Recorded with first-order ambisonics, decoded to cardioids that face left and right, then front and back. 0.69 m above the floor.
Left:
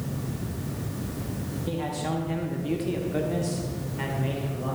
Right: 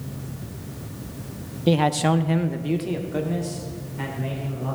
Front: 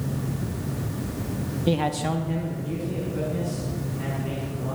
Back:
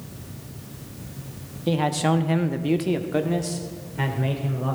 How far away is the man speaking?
About 0.7 m.